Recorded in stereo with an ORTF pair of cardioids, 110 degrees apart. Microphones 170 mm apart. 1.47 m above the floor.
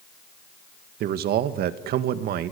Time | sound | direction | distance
1.0 | a man speaking | 70° right | 2 m